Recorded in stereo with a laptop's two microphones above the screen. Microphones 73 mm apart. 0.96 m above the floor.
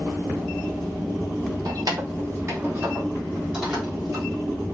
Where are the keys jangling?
65° right (ahead or behind), 0.9 m; by 4.2 s centre (ahead or behind), 1.5 m.